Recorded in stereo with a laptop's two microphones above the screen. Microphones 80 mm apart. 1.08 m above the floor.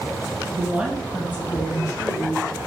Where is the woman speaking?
30° right (ahead or behind), 0.7 m; by 2.5 s 50° left (ahead or behind), 1.4 m.